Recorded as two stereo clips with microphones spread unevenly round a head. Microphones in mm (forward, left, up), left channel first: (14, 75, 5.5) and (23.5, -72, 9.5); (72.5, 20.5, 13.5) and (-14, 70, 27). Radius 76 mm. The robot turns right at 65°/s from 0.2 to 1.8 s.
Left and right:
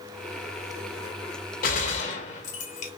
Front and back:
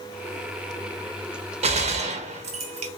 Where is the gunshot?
130° left, 0.8 m; by 2.9 s 140° left, 0.8 m.